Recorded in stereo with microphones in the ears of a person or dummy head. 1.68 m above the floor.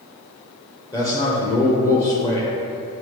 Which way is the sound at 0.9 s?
20° left (ahead or behind).